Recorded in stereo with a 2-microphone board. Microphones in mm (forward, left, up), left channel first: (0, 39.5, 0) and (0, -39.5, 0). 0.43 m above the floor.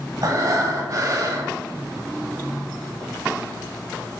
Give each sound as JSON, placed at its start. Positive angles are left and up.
{"t": 0.2, "sound": "breathing", "side_deg": -50, "distance_m": 1.1}